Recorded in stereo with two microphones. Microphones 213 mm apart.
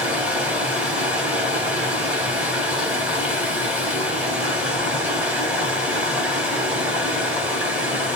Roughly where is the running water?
Centre.